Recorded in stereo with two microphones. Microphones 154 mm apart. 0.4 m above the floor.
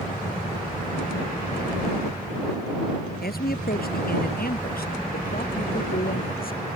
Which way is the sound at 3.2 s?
80° left.